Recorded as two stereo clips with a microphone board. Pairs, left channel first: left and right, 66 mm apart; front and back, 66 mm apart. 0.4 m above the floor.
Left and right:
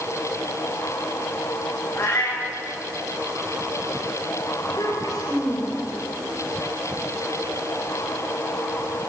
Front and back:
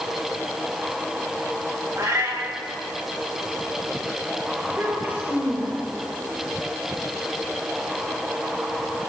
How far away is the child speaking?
About 6 m.